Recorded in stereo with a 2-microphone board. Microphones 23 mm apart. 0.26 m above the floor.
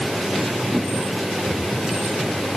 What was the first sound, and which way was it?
Only background noise.